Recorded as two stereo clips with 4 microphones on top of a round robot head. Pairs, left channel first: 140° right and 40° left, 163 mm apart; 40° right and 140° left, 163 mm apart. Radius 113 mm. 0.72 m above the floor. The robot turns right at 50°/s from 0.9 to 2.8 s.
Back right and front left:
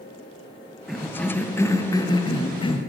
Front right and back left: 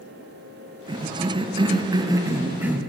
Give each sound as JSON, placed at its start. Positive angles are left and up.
{"t": 0.9, "sound": "a cough", "azimuth_deg": 125, "distance_m": 0.6}